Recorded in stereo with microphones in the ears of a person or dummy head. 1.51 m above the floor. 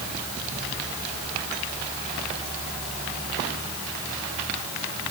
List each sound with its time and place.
Only background noise.